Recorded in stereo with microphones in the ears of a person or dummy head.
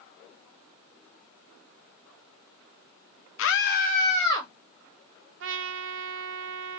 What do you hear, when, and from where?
3.4 s a scream: 60° left (ahead or behind), 0.5 m; by 4.5 s 15° left (ahead or behind), 0.9 m
5.4 s a trumpet: 55° right (ahead or behind), 0.6 m